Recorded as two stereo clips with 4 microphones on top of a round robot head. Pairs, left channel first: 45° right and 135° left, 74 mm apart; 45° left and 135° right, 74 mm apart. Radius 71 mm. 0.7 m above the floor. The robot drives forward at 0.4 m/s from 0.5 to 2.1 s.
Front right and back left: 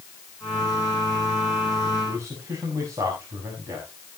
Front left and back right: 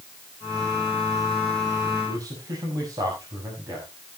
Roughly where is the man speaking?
Behind.